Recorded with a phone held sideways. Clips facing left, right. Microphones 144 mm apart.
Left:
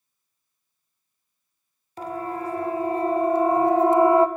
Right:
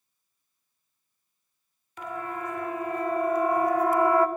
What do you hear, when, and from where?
2.0 s a siren: 40° left (ahead or behind), 3 m; by 4.3 s 25° left (ahead or behind), 1.8 m